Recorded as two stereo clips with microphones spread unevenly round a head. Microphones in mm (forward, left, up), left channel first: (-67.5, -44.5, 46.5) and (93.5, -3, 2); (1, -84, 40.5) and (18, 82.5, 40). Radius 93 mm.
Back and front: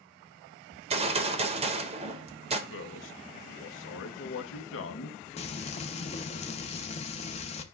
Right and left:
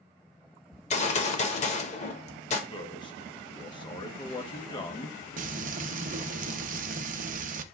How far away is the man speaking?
About 0.9 m.